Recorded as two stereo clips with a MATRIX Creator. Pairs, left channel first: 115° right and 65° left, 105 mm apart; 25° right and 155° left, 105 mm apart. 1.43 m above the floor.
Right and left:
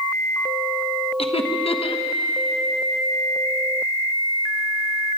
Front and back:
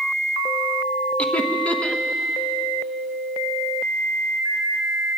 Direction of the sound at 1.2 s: 100° right.